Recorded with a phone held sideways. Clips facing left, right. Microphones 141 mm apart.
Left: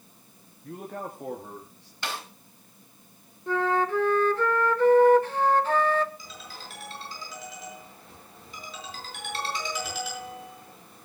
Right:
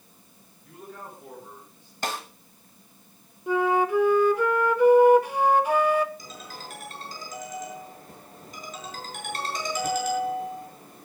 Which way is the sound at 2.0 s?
45° right (ahead or behind).